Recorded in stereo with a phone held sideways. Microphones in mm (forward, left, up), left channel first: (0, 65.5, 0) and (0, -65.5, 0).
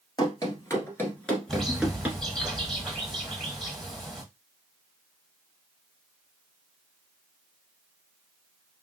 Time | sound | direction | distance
0.2 | running footsteps | 30° left (ahead or behind) | 1.8 m
1.5 | a bird | centre (ahead or behind) | 1.4 m